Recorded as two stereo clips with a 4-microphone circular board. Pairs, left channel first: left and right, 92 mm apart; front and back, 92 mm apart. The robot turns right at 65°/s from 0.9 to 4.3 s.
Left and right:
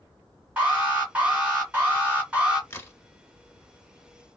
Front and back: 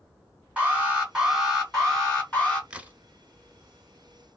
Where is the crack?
110° left, 0.6 m; by 3.0 s 130° left, 0.6 m.